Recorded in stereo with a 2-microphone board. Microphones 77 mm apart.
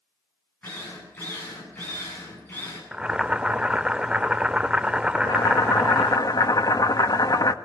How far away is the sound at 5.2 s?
About 1.7 m.